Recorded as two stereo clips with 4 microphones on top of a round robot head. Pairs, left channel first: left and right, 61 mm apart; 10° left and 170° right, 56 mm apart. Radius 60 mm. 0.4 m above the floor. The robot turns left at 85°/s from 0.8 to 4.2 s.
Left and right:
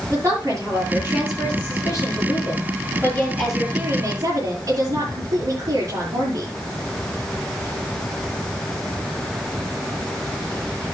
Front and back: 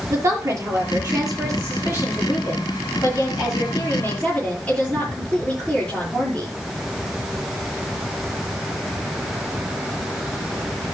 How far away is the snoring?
I don't hear snoring.